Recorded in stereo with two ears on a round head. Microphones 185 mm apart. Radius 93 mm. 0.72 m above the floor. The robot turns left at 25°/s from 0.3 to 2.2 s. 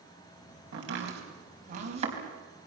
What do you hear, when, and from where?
0.7 s chopping: 65° right (ahead or behind), 4.5 m; by 2.1 s 30° right (ahead or behind), 4.5 m